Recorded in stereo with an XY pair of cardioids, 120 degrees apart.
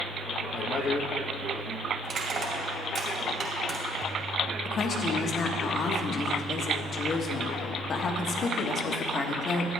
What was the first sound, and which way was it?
A man speaking, 50° left.